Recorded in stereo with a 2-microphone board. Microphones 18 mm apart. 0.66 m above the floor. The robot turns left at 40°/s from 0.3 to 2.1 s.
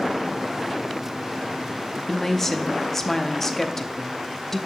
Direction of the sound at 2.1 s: 20° left (ahead or behind).